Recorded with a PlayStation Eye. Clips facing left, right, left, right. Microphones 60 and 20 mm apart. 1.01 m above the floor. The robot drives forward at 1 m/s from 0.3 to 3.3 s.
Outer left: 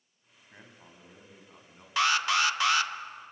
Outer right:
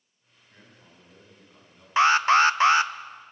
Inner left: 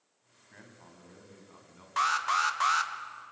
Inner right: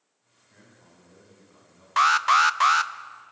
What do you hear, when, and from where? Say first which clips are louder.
0.5 s a man speaking: outer left 2 dB, inner left 2 dB; 30° left (ahead or behind), 6 m; by 1.9 s 25° left (ahead or behind), 7 m
2.0 s an alarm: outer right 8 dB, inner right 9 dB; 30° right (ahead or behind), 0.7 m; by 2.9 s 25° right (ahead or behind), 0.8 m